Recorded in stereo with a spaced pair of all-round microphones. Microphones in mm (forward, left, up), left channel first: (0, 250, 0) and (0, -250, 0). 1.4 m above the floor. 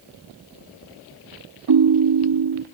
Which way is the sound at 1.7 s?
50° right (ahead or behind).